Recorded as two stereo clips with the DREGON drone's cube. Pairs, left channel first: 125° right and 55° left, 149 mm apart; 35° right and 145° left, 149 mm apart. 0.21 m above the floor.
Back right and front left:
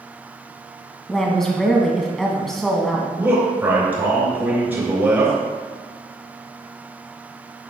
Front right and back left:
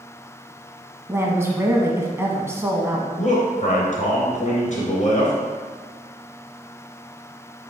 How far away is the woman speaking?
About 1.3 m.